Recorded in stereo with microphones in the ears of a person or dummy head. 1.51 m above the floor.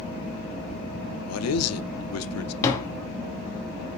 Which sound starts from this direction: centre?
Tapping, at 2.6 s.